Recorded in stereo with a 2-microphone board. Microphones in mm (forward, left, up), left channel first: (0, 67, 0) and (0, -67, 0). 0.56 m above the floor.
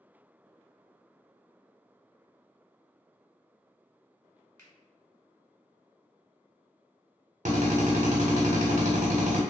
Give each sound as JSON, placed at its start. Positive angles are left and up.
{"t": 4.6, "sound": "a finger snap", "side_deg": 20, "distance_m": 1.2}
{"t": 7.5, "sound": "a drill", "side_deg": -65, "distance_m": 1.0}